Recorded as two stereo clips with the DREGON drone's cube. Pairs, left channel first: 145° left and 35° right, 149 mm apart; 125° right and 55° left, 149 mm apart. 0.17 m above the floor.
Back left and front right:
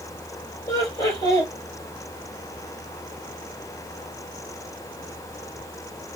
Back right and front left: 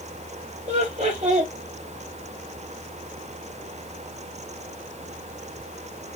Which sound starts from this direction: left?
Laughter, at 0.7 s.